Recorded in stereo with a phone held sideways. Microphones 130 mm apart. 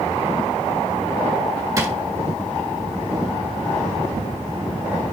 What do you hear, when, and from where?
1.8 s a drawer: 25° right (ahead or behind), 1.9 m